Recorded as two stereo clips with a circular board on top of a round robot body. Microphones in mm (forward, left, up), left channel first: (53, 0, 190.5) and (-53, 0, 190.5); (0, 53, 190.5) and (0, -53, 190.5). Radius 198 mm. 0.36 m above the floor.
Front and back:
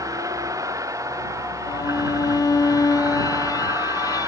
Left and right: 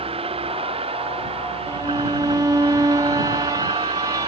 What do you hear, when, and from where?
0.0 s a vehicle: 120° right; by 4.3 s 115° right
1.7 s a violin: 45° right